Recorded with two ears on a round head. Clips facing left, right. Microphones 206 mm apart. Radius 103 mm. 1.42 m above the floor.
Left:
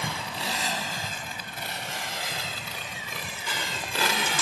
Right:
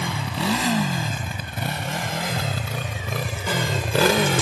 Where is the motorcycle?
55° right (ahead or behind); by 4.4 s 50° right (ahead or behind).